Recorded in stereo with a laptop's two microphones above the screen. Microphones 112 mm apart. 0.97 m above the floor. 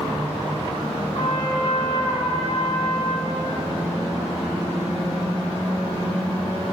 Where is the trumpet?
50° left (ahead or behind), 1.1 m.